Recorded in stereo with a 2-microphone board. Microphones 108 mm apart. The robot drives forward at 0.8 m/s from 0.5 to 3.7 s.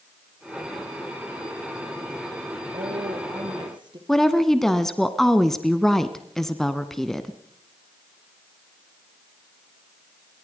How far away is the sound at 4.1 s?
About 1.1 m.